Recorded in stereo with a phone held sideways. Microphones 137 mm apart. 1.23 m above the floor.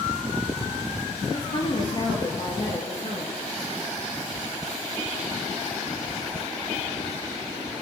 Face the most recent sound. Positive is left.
turn(degrees=45)  # may be behind; listen again after turning